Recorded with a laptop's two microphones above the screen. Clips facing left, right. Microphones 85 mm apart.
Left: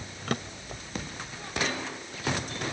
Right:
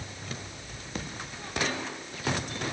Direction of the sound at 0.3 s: 80° left.